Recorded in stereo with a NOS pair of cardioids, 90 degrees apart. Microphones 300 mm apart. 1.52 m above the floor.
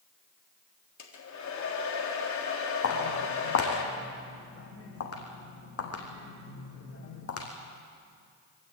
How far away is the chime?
I don't hear a chime.